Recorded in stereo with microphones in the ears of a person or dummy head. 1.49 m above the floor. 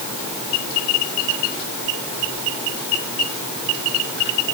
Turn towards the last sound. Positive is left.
No sound to turn to.